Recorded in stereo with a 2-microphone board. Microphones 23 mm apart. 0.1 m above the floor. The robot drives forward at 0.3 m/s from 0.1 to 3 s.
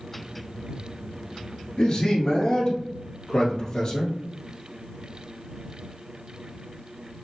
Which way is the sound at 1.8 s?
40° left (ahead or behind).